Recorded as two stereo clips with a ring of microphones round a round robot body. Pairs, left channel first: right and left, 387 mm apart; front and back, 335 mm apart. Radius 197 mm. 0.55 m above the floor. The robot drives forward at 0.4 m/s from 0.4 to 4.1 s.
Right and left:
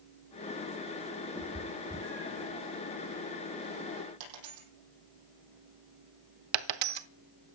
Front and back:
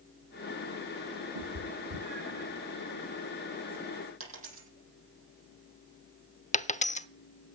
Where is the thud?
No thud in this recording.